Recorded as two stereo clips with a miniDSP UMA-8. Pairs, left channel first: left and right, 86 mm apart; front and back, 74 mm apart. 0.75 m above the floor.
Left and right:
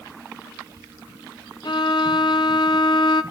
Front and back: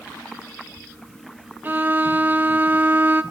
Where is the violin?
120° left, 0.9 m.